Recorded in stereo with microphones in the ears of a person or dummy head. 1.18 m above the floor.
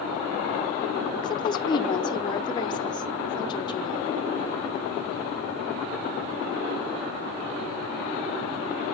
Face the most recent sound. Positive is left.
turn(degrees=15)  # may be behind; listen again after turning